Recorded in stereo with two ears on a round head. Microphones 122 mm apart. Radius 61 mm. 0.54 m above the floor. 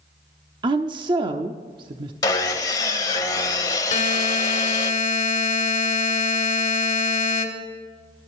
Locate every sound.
0.6 s a woman speaking: 35° right (ahead or behind), 0.8 m
2.2 s sawing: 25° left (ahead or behind), 0.9 m
3.9 s a buzzer: 55° left (ahead or behind), 1.8 m